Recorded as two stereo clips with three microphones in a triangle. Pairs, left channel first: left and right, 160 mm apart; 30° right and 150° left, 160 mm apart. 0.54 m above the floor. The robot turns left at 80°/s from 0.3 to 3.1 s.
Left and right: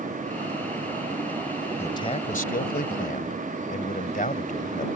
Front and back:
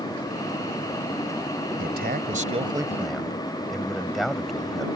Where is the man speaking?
165° left; by 4.9 s 60° left.